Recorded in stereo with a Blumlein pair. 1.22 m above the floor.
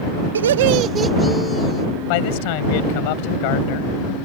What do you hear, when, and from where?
0.3 s laughter: 70° right; by 1.9 s 30° left
2.1 s a man speaking: 45° left